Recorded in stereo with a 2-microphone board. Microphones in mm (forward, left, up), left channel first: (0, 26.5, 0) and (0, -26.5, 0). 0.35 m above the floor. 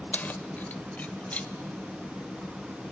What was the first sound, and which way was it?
Keys jangling, 35° left (ahead or behind).